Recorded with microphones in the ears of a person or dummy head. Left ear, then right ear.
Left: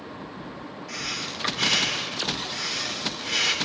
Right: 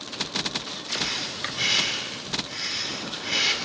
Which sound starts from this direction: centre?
Breathing, at 0.9 s.